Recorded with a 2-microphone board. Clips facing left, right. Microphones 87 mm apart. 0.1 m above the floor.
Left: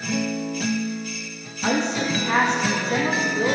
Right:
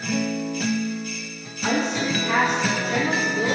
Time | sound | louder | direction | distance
1.6 | a woman speaking | left 1 dB | 30° left (ahead or behind) | 5 m